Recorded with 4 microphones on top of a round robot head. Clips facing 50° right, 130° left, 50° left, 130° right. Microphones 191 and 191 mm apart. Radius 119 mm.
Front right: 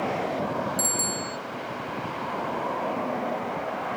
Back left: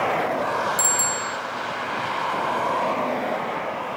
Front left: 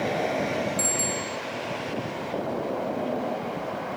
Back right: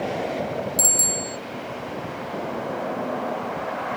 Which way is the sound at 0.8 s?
170° right.